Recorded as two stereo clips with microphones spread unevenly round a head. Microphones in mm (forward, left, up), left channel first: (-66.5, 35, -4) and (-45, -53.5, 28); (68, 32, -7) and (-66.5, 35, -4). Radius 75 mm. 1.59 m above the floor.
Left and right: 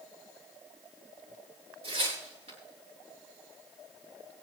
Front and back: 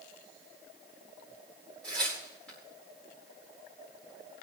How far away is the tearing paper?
About 9.5 m.